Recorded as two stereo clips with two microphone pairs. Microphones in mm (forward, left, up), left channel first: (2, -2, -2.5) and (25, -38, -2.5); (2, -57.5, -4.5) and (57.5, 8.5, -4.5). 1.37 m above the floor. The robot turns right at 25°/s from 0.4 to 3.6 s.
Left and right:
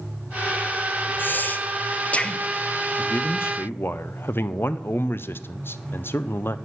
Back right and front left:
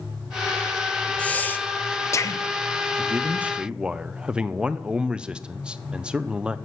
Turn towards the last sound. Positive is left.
turn(degrees=125)